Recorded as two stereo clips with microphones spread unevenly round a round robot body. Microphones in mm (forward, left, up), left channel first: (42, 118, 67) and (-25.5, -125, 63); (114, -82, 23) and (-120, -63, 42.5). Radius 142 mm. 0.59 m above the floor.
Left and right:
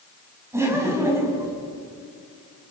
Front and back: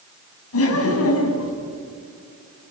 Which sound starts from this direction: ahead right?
Laughter, at 0.5 s.